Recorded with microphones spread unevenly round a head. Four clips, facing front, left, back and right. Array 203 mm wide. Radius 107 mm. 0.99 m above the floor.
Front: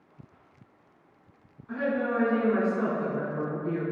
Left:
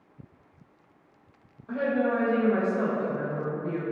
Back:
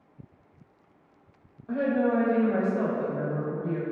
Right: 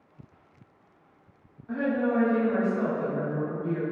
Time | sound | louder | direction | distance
1.7 | a woman speaking | even, back 3 dB | 160° left | 1.1 m